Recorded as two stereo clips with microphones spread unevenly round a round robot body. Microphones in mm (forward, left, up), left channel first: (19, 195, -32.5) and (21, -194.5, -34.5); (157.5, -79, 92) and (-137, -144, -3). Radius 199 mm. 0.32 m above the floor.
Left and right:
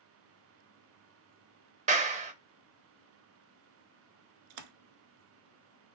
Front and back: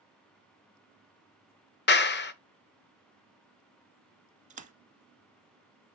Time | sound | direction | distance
1.9 | a clap | 45° right | 0.7 m
4.5 | a splash | 95° right | 0.8 m